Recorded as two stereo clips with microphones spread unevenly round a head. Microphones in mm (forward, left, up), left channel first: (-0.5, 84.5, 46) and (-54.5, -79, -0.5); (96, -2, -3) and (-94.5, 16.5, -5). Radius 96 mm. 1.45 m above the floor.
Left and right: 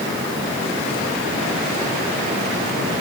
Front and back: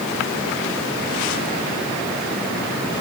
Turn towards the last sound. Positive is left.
No sound to turn to.